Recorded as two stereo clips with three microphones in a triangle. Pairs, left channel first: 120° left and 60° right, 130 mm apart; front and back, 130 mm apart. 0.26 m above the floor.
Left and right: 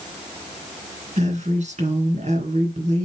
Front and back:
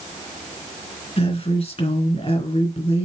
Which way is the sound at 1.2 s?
35° right.